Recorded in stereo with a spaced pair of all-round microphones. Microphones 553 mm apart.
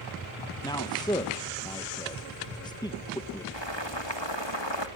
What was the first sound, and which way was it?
A man speaking, 5° left (ahead or behind).